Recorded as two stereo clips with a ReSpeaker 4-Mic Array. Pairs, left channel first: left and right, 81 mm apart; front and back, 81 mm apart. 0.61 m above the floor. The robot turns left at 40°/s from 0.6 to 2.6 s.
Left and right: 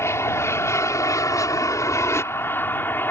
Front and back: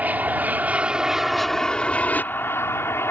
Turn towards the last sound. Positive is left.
turn(degrees=40)